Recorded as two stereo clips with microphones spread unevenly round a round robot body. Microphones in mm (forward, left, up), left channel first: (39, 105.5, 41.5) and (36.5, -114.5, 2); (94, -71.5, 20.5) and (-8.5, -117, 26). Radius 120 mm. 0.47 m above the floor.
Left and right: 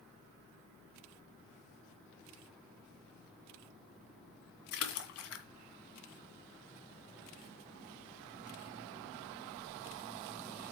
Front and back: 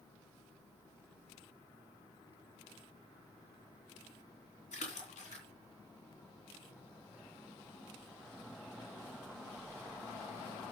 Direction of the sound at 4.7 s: 65° left.